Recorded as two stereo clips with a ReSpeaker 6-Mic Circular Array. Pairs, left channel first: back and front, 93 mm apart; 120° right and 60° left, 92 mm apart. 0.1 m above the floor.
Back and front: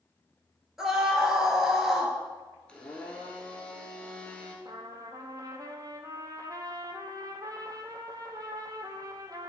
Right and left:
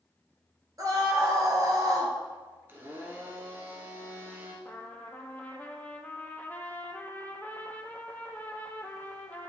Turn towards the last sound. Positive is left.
turn(degrees=-50)